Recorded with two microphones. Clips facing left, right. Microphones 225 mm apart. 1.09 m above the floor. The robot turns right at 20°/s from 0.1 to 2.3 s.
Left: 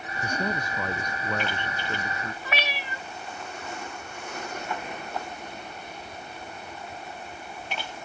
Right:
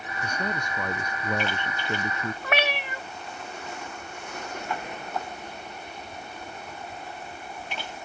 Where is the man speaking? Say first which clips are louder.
Left 2 dB; 170° left; by 2.3 s 150° right.